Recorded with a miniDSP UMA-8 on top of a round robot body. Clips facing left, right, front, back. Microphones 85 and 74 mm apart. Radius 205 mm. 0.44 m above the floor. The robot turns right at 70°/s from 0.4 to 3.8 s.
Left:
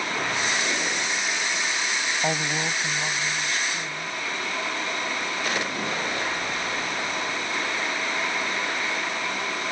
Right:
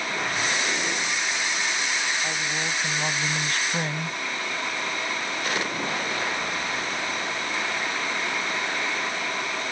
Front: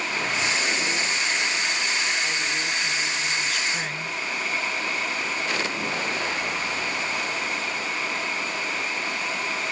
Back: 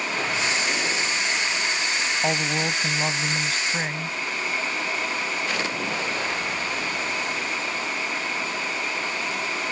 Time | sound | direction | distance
2.2 | a woman speaking | 140° left | ?